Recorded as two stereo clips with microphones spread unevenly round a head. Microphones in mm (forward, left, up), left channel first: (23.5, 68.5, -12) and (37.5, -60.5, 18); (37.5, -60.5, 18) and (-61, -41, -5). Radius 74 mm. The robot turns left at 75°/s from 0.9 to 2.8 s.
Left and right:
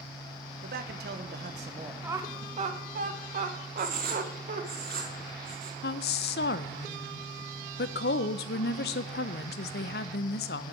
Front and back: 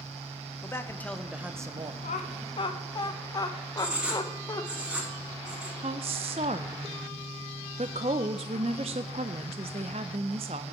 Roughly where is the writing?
Behind right.